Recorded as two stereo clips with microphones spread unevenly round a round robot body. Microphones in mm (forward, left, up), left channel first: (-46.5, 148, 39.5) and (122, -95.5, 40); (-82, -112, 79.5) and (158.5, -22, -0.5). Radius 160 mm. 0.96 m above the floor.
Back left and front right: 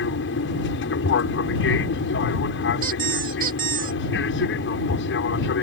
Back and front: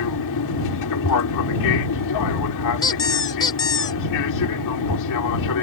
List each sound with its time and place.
0.0 s an aircraft: 175° left
2.8 s a squeak: 110° right